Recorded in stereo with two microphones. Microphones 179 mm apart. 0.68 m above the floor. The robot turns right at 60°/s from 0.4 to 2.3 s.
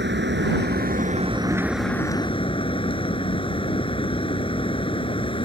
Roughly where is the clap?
I don't hear a clap.